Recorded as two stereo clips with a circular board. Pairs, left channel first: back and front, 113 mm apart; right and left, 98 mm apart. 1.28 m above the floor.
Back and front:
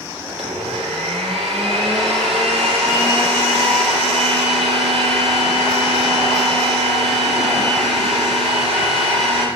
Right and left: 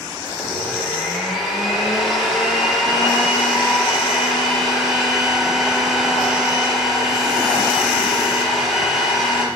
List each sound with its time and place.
0.3 s a blender: 5° left, 6.5 m